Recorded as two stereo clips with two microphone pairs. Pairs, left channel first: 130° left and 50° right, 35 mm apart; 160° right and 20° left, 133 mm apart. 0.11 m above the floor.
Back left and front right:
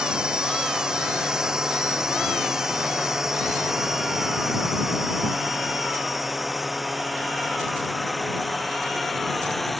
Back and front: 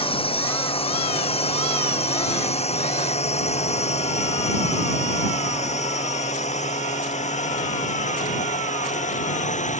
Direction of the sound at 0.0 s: 115° right.